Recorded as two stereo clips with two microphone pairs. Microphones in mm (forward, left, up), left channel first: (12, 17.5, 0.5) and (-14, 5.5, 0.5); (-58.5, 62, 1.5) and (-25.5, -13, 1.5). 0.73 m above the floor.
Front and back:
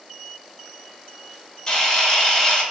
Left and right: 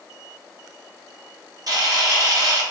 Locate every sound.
1.7 s a camera shutter: 45° right, 0.9 m